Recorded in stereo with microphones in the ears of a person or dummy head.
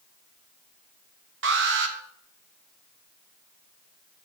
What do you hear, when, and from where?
1.4 s an alarm: 50° right (ahead or behind), 1.3 m